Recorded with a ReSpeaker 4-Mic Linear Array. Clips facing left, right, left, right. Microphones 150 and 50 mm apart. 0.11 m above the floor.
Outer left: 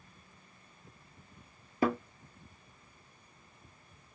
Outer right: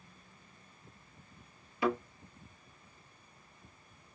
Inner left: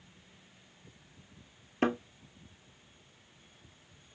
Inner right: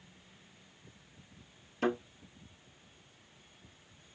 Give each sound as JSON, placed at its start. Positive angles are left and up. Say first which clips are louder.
{"t": 1.8, "sound": "a thud", "louder": "outer left 2 dB, inner left 2 dB", "side_deg": 45, "distance_m": 1.0}